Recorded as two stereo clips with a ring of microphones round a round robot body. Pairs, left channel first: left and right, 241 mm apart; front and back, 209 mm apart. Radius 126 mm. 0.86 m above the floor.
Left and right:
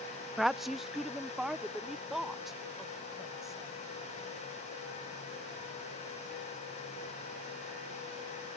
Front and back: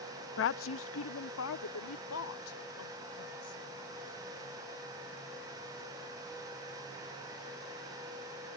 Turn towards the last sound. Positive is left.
turn(degrees=0)